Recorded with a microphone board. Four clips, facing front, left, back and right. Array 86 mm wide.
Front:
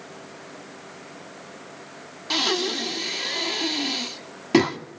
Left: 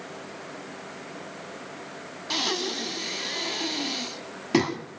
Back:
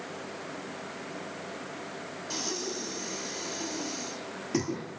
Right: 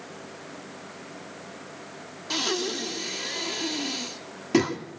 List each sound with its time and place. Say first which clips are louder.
2.3 s breathing: right 1 dB, front 11 dB; 15° left, 2.5 m